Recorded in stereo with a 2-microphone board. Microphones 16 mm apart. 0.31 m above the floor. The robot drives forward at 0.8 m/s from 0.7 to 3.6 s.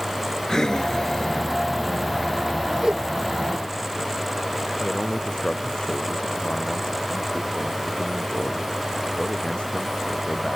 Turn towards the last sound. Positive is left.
turn(degrees=60)  # may be behind; listen again after turning